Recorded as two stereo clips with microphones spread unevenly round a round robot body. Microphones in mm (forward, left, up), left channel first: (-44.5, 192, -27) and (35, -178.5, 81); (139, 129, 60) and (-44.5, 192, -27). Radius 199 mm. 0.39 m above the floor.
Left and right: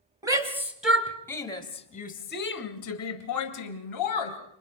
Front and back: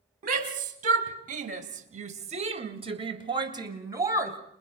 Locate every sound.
0.2 s a shout: 165° right, 3 m; by 4.4 s 100° left, 3 m